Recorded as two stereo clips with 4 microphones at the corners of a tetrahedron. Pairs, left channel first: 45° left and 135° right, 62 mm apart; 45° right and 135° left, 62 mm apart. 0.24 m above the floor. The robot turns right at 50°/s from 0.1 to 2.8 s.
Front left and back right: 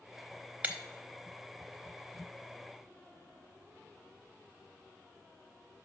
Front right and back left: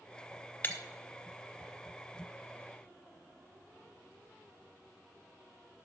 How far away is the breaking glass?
About 0.9 m.